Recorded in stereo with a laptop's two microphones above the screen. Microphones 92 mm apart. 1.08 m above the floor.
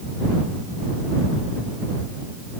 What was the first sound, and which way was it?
Only background noise.